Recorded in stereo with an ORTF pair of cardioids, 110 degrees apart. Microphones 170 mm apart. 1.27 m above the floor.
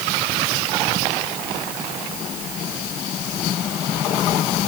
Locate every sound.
Only background noise.